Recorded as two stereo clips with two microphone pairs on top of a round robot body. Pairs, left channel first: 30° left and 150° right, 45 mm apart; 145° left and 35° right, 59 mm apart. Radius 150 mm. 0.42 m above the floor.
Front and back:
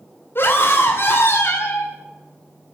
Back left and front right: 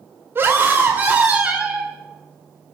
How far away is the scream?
About 2.5 m.